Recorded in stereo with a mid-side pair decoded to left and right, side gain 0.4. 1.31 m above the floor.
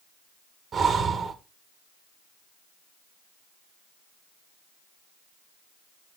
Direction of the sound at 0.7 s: 60° right.